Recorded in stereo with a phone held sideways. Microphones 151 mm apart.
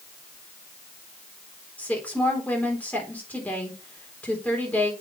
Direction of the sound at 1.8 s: 10° left (ahead or behind).